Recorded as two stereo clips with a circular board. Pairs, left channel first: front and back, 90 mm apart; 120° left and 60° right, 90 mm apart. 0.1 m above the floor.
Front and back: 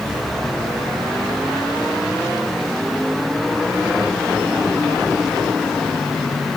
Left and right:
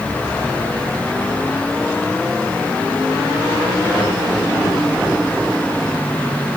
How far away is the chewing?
I don't hear chewing.